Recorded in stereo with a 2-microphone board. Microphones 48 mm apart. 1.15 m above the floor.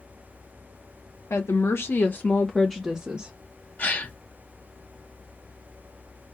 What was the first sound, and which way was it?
A woman speaking, 70° left (ahead or behind).